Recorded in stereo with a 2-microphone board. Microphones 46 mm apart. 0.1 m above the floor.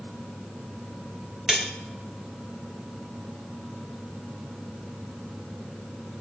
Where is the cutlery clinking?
10° right (ahead or behind), 1.0 m.